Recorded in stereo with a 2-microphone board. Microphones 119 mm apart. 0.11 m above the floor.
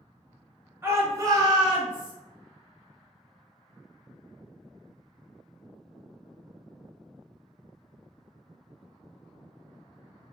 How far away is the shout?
About 1.4 m.